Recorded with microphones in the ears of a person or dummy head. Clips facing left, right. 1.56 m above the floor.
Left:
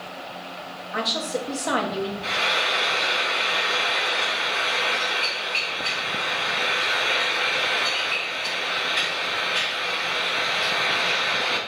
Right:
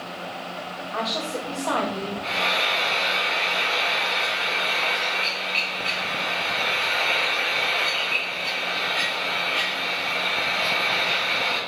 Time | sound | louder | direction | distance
0.9 | a woman speaking | left 2 dB | 15° left (ahead or behind) | 1.2 m
2.2 | frying | right 1 dB | 20° left (ahead or behind) | 4 m